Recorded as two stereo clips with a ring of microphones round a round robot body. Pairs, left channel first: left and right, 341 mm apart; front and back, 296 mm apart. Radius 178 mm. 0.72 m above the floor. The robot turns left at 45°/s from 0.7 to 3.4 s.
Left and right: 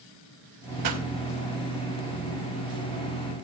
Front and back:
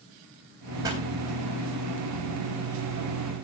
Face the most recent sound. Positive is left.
turn(degrees=145)